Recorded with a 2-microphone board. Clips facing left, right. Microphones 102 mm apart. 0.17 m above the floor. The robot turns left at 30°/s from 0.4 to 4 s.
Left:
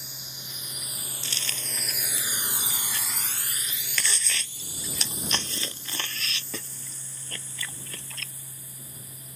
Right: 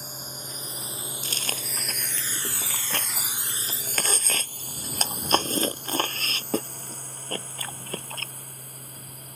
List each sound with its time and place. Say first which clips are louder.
0.0 s a drone: right 7 dB; 45° right (ahead or behind); by 9.4 s 60° right (ahead or behind)
1.2 s chewing: right 3 dB; 40° right (ahead or behind); by 8.3 s 50° right (ahead or behind)